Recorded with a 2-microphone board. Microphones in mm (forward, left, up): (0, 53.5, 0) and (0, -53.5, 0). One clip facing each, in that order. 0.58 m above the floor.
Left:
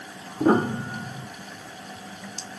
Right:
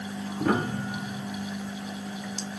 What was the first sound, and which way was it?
A piano, 30° left (ahead or behind).